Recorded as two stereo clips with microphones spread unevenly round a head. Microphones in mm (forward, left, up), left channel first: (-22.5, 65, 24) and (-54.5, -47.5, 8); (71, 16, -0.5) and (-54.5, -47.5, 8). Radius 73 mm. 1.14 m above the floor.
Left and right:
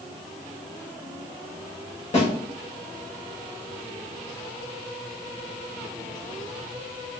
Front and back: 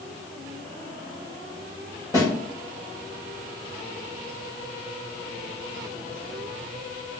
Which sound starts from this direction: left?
A snare drum, at 2.1 s.